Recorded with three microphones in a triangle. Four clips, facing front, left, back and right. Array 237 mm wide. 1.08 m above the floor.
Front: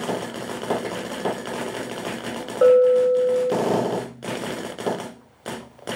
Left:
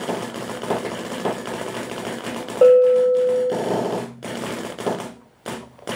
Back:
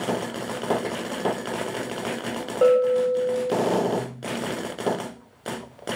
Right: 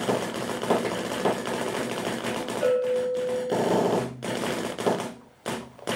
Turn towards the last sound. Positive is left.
turn(degrees=85)